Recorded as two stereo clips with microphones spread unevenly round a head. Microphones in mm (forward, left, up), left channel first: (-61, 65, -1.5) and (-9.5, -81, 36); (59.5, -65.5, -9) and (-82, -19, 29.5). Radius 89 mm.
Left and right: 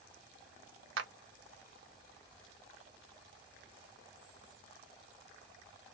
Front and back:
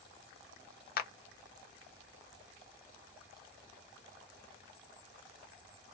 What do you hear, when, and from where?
1.0 s a clap: 40° right, 0.6 m